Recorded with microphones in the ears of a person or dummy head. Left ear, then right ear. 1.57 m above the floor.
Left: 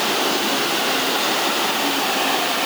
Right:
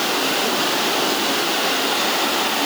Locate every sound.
Only background noise.